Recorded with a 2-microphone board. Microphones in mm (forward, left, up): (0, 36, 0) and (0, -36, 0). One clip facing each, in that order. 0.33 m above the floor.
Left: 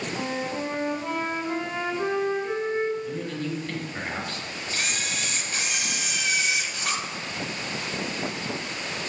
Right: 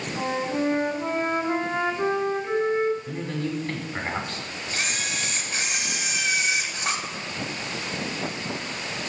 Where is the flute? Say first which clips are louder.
Right 6 dB; 20° right (ahead or behind), 1.4 m.